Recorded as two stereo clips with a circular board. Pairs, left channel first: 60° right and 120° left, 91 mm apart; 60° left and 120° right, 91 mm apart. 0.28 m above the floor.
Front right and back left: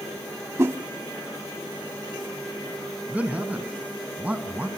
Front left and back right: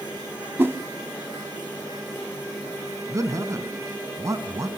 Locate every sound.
0.6 s a whoosh: straight behind, 0.6 m
3.1 s a man speaking: 165° right, 2.5 m